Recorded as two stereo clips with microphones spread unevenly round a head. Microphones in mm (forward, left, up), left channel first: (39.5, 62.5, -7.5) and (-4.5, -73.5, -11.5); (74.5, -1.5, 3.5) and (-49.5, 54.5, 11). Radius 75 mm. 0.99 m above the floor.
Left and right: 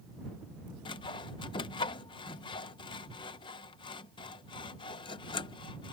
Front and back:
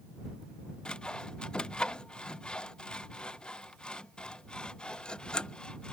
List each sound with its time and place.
0.8 s sawing: 50° left